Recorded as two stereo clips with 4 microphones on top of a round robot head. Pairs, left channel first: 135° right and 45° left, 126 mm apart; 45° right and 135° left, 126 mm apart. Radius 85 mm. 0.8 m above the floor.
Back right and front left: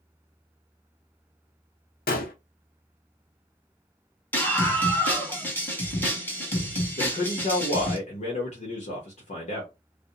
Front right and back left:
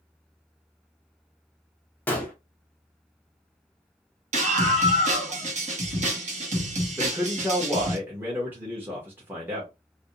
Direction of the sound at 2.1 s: 125° right.